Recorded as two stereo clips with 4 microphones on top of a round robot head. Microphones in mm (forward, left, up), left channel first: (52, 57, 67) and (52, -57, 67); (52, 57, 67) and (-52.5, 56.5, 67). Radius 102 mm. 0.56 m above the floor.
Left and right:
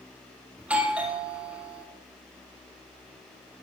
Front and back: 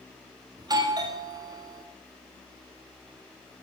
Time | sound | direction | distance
0.6 | a doorbell | 165° right | 2.0 m